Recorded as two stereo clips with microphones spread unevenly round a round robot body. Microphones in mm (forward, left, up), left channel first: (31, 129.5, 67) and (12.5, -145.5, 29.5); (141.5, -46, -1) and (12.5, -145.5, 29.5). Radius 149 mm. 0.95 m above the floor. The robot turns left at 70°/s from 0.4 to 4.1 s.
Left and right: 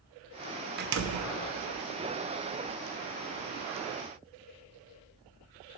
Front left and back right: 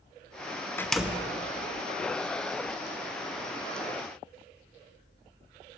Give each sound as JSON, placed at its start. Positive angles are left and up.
{"t": 0.8, "sound": "a door slam", "azimuth_deg": -40, "distance_m": 0.7}